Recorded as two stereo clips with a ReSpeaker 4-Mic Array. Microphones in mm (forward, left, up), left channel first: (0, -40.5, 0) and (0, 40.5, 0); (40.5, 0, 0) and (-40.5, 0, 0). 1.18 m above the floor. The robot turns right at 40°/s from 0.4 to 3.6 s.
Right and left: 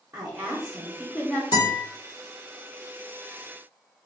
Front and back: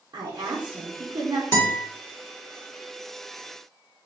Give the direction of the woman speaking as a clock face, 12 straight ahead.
7 o'clock.